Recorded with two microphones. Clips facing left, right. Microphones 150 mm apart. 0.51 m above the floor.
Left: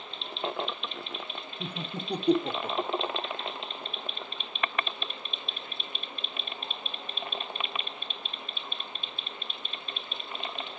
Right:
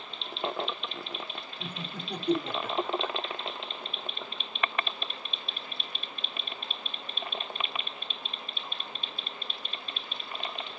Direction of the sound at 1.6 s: 35° left (ahead or behind).